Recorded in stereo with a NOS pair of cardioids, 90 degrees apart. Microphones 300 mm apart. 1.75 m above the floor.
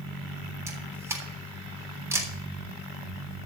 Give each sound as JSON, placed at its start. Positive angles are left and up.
{"t": 0.7, "sound": "a camera shutter", "azimuth_deg": -10, "distance_m": 3.5}